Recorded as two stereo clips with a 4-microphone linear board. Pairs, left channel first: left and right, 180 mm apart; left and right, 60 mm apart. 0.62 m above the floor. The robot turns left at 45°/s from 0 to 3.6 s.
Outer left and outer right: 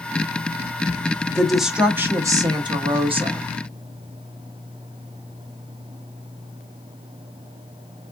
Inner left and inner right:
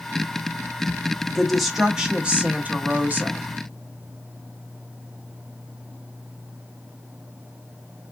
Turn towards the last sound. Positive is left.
turn(degrees=-95)